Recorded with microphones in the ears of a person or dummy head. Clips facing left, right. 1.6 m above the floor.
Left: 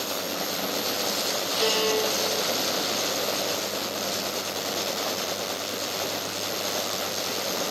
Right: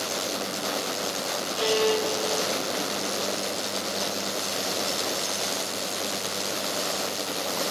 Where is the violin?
55° left (ahead or behind), 5.5 m.